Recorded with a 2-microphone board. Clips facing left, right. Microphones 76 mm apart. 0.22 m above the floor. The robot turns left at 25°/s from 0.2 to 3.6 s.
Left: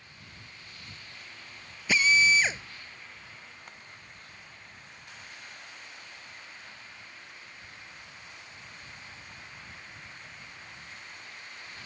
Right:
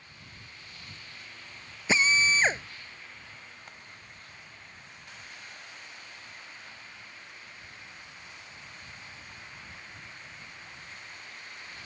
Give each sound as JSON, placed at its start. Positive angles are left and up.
{"t": 1.9, "sound": "a drill", "side_deg": -30}